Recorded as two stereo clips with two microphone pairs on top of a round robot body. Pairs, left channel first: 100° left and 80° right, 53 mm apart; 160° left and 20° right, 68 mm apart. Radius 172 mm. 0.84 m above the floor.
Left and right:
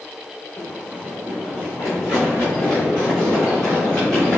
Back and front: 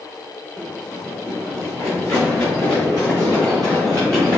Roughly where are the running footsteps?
Ahead left.